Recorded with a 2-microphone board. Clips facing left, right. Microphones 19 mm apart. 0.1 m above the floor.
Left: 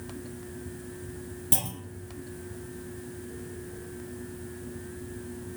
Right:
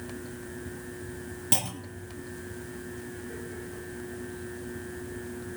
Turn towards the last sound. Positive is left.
turn(degrees=-25)  # may be behind; listen again after turning